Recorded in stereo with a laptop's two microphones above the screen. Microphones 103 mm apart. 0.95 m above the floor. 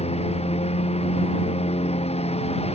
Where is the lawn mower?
90° left; by 2.8 s 85° left.